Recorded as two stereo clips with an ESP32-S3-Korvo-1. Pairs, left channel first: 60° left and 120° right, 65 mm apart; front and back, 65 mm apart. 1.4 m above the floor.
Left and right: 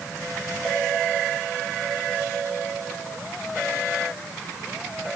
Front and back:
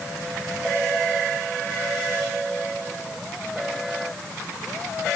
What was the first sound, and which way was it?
Only background noise.